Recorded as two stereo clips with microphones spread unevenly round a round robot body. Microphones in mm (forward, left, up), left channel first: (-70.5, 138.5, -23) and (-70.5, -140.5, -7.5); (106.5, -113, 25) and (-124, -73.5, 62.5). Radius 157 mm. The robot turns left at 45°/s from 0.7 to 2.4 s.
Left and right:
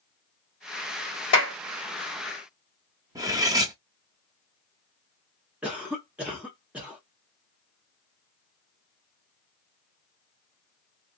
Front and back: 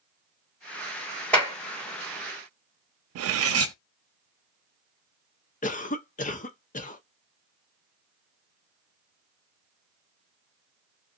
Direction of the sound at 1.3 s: 70° left.